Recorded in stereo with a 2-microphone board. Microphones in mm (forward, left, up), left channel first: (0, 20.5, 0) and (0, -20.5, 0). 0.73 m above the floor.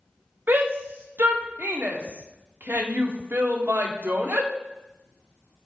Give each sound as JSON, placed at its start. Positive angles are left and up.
{"t": 0.5, "sound": "a shout", "side_deg": -65, "distance_m": 1.5}